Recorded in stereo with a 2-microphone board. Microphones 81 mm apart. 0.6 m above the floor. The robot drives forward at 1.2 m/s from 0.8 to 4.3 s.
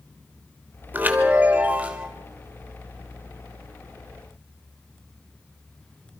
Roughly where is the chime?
Right.